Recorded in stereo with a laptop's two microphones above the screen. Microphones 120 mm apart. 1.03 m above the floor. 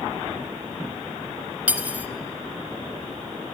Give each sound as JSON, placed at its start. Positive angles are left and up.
{"t": 1.7, "sound": "cutlery clinking", "side_deg": -10, "distance_m": 1.1}